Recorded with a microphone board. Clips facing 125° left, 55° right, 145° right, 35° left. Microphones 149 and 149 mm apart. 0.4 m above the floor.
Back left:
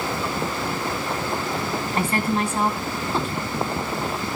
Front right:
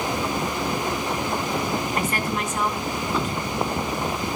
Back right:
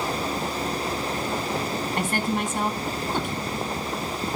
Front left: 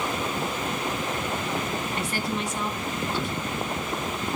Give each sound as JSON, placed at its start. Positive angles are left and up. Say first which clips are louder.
{"t": 2.0, "sound": "a woman speaking", "louder": "back left 3 dB, back right 3 dB", "azimuth_deg": -175, "distance_m": 3.0}